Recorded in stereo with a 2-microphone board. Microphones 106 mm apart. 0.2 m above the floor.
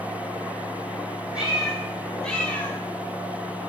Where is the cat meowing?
10° right (ahead or behind), 2.5 m; by 2.8 s 25° left (ahead or behind), 1.5 m.